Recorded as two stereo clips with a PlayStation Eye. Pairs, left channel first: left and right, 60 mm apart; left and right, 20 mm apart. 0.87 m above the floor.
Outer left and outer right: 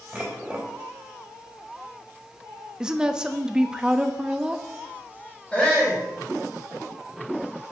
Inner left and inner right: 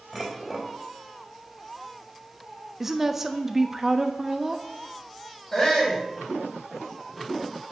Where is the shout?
15° left (ahead or behind), 4 m.